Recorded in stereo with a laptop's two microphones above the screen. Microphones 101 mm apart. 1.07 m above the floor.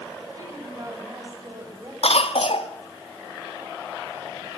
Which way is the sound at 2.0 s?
80° left.